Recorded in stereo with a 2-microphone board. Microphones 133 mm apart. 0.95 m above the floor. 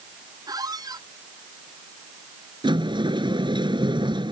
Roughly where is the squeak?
Right.